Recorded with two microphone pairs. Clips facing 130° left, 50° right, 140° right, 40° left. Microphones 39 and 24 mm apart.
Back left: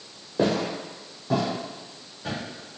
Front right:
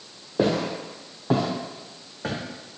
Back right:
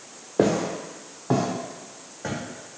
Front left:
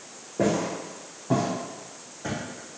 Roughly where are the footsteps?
Behind right.